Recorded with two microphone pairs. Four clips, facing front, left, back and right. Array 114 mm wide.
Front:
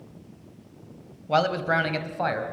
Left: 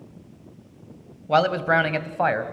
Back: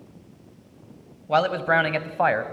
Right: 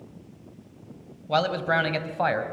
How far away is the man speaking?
About 1.4 m.